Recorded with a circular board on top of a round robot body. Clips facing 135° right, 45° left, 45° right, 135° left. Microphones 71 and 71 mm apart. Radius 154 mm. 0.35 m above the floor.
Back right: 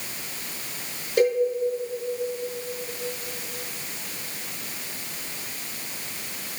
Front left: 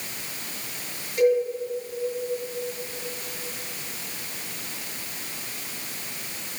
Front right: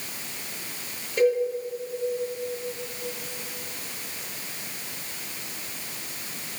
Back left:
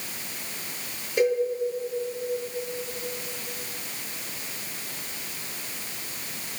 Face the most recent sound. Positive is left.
turn(degrees=-145)